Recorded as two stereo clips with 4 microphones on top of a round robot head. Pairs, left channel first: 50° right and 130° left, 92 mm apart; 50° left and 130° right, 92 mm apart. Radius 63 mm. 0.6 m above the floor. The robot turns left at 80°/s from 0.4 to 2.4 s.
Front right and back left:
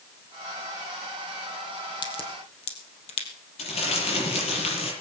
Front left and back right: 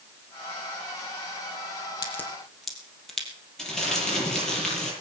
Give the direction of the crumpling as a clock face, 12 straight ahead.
1 o'clock.